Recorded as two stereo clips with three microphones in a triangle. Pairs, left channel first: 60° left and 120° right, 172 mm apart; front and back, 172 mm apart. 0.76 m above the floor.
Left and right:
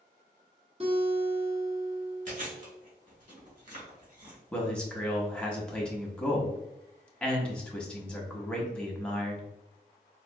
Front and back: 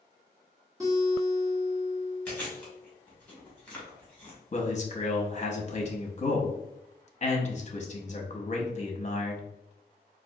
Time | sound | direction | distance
0.8 | a guitar | 125° right | 1.2 m
2.3 | chewing | 85° right | 1.7 m
4.5 | a man speaking | 20° right | 0.8 m